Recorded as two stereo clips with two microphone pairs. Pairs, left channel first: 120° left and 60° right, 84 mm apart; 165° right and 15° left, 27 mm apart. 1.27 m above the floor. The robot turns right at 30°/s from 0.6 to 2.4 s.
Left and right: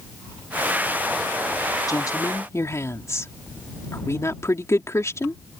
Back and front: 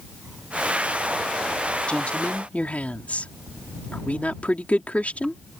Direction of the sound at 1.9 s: 160° left.